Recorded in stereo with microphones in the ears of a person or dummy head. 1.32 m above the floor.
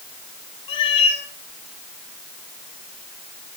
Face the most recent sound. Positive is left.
turn(degrees=30)  # may be behind; listen again after turning